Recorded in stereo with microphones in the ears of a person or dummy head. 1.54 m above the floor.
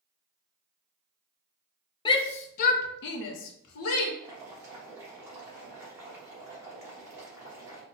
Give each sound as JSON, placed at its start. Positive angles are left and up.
{"t": 2.0, "sound": "a shout", "side_deg": 25, "distance_m": 0.7}
{"t": 4.2, "sound": "boiling", "side_deg": -25, "distance_m": 1.2}